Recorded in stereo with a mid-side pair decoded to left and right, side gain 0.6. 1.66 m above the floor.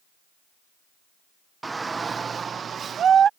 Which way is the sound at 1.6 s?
15° right.